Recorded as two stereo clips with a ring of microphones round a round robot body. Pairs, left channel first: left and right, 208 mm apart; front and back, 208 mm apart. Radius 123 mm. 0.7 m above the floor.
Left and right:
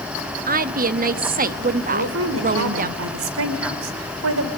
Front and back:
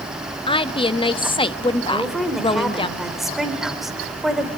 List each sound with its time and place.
0.5 s a woman speaking: 60° right, 1.0 m
1.9 s a woman speaking: 90° right, 2.5 m